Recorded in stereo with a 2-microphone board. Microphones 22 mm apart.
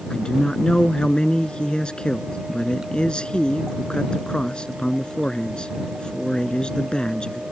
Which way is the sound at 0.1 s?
45° left (ahead or behind).